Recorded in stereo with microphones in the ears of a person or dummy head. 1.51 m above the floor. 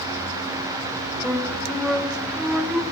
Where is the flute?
Centre (ahead or behind), 1.0 m.